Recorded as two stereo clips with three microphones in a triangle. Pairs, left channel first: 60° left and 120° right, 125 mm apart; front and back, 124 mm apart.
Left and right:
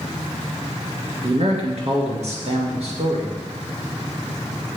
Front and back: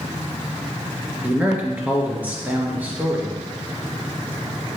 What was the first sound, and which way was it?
A man speaking, 105° right.